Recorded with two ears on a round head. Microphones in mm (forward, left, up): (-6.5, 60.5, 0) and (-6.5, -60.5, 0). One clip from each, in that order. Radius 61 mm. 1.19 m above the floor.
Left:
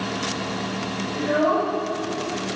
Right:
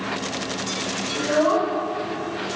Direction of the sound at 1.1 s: 90° right.